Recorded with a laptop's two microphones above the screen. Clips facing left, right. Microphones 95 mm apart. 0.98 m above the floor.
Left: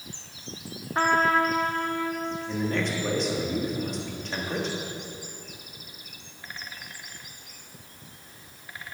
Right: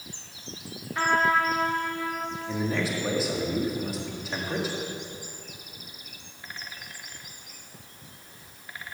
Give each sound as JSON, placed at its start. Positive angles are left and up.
{"t": 0.9, "sound": "a trumpet", "side_deg": 40, "distance_m": 1.4}
{"t": 2.5, "sound": "a man speaking", "side_deg": -5, "distance_m": 1.6}